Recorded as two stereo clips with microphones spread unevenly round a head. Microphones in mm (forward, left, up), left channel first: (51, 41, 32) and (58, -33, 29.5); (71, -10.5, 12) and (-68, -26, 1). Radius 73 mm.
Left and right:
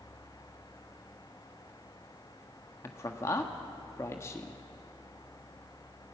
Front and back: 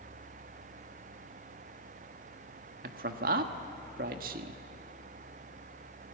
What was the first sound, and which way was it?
A man speaking, 160° left.